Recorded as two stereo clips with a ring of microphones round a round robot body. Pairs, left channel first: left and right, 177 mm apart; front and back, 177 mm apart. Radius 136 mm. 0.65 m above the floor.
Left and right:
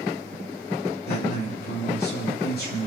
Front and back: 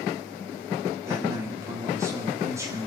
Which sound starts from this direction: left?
A man speaking, at 1.1 s.